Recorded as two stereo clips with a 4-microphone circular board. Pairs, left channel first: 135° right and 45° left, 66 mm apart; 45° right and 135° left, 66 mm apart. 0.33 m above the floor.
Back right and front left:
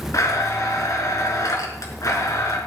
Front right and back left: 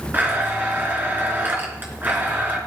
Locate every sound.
0.1 s a blender: 165° right, 3.5 m